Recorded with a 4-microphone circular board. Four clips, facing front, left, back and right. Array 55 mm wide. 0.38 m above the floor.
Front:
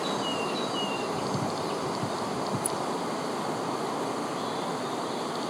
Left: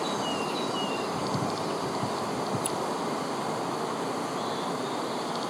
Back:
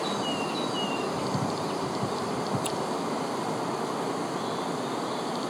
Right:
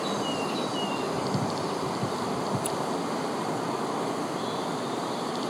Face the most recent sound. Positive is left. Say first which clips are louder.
# right 1 dB, back 1 dB
turn(degrees=175)